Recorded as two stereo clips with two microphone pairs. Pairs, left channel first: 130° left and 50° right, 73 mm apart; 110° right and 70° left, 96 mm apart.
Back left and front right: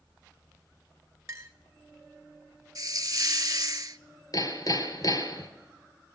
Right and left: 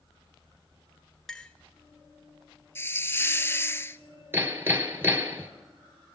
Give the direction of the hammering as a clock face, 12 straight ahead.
8 o'clock.